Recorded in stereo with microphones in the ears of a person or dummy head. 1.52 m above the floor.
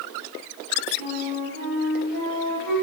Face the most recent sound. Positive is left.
turn(degrees=-45)  # may be behind; listen again after turning